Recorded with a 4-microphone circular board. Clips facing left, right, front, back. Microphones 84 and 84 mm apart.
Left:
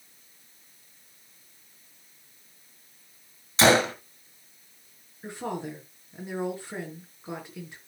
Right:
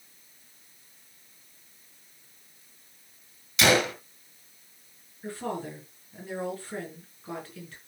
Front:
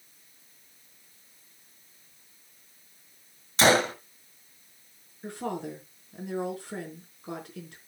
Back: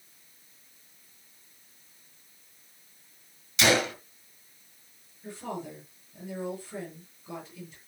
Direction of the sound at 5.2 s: 20° left.